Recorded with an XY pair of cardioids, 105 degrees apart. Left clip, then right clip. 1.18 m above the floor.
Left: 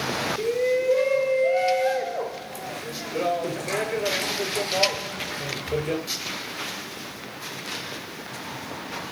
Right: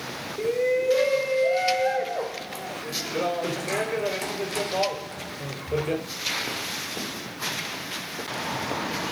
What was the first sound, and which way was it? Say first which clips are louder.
A shout: right 2 dB; 5° right.